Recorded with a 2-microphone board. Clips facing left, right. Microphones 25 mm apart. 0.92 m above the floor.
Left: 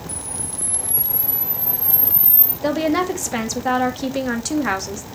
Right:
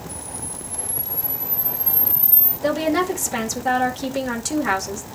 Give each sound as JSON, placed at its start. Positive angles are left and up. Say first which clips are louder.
{"t": 0.1, "sound": "a camera shutter", "louder": "left 2 dB", "side_deg": 70, "distance_m": 4.5}
{"t": 2.6, "sound": "a woman speaking", "louder": "left 1 dB", "side_deg": 15, "distance_m": 1.6}